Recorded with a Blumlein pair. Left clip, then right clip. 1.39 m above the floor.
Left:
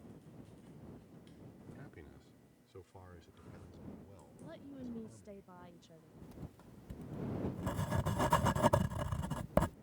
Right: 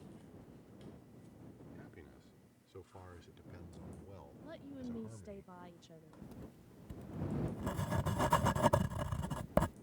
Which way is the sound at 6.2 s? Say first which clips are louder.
Left 2 dB; straight ahead.